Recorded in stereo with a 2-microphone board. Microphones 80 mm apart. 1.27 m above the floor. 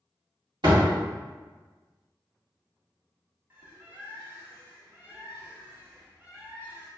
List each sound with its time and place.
0.6 s a door slam: 65° right (ahead or behind), 1.7 m
3.5 s a bird: 25° right (ahead or behind), 0.7 m